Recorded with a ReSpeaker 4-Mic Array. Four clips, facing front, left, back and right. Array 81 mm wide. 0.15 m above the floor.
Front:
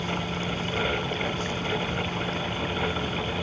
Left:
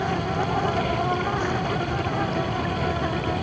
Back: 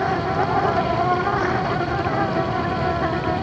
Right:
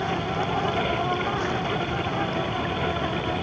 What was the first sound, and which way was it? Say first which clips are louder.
An insect: left 1 dB, back 10 dB; 175° left.